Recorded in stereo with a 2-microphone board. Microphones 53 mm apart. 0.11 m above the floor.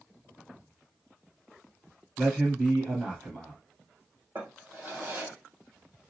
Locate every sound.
2.2 s a man speaking: 15° right (ahead or behind), 2.0 m
4.3 s a drawer: 40° right (ahead or behind), 1.8 m